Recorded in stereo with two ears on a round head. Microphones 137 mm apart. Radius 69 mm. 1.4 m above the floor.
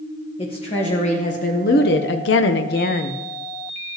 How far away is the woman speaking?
About 1.4 m.